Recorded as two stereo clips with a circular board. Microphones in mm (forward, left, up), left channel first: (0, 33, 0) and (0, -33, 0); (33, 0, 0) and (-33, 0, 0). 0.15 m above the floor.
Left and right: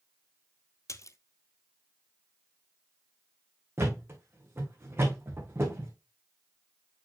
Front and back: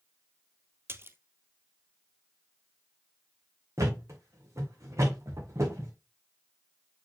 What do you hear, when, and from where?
0.9 s a splash: 125° left, 0.6 m
3.8 s a thud: 140° right, 3 m